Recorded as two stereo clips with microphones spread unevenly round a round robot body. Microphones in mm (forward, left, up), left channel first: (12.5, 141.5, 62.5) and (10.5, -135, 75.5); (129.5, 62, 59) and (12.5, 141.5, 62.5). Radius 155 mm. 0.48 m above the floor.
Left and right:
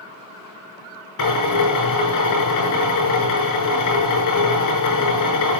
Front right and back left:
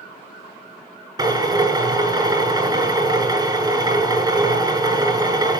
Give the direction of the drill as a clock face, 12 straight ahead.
9 o'clock.